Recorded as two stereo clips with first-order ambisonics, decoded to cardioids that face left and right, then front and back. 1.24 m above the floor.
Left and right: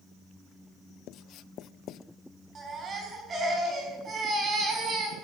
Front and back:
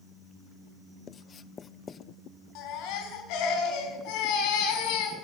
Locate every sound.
1.1 s writing: 60° left, 0.5 m
2.5 s a baby crying: 25° right, 6 m